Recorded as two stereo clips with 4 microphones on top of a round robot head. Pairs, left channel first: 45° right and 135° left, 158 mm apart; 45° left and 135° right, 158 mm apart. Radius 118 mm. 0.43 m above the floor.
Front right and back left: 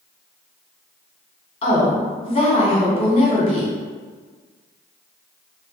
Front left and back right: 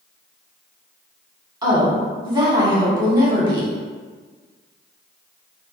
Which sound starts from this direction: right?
A woman speaking, at 1.6 s.